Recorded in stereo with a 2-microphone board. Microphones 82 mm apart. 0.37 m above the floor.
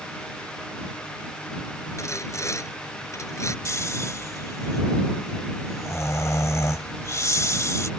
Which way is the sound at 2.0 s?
40° left (ahead or behind).